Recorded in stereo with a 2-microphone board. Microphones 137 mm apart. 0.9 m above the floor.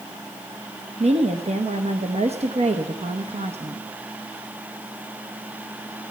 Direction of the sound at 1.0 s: 55° right (ahead or behind).